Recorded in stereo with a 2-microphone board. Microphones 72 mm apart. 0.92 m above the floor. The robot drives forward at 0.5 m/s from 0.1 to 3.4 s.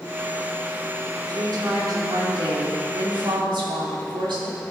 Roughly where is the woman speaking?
Right.